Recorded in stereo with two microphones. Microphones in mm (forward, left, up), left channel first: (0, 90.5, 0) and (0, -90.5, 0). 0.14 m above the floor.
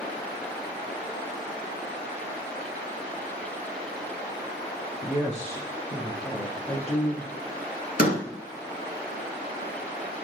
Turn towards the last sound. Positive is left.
turn(degrees=55)  # may be behind; listen again after turning